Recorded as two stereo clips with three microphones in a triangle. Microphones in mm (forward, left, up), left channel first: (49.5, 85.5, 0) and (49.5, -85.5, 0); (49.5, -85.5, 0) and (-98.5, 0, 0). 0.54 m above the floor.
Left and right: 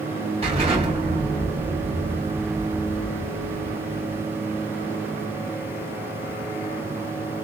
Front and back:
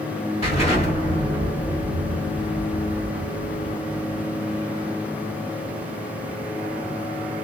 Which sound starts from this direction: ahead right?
An explosion, at 0.4 s.